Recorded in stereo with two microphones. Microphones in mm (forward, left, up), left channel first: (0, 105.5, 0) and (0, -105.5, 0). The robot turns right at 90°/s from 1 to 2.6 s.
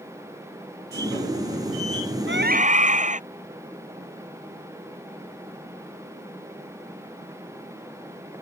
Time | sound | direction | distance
2.3 | a scream | 65° right (ahead or behind) | ?